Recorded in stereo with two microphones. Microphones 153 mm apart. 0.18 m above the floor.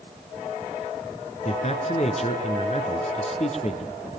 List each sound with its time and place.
1.4 s a man speaking: 45° left (ahead or behind), 2 m